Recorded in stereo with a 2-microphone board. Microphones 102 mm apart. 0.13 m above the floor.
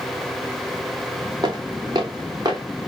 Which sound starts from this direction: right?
Footsteps, at 1.4 s.